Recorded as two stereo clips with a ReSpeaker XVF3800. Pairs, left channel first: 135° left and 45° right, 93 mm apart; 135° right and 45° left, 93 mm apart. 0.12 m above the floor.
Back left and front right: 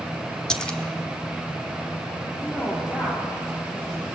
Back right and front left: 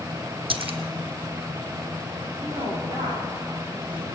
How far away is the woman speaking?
About 7 m.